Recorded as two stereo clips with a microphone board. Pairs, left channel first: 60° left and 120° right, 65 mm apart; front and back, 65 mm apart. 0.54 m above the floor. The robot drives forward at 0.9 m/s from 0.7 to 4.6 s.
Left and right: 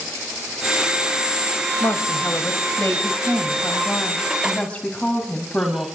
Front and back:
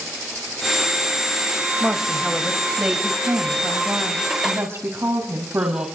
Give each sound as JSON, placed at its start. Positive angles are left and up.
{"t": 1.8, "sound": "a woman speaking", "azimuth_deg": 85, "distance_m": 2.5}